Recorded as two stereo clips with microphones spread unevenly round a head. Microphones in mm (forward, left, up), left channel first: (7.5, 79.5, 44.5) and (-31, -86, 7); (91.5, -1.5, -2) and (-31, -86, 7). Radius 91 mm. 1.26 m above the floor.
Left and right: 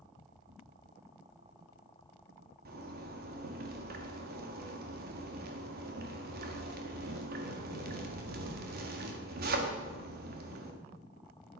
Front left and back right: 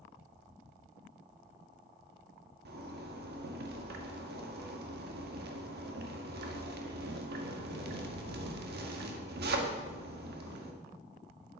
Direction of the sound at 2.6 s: 140° right.